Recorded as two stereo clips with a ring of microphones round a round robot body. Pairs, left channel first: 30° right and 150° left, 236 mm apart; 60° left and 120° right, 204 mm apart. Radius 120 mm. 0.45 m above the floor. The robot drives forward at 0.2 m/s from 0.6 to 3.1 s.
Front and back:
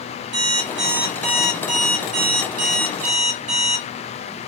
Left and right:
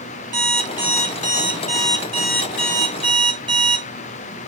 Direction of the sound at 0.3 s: 175° left.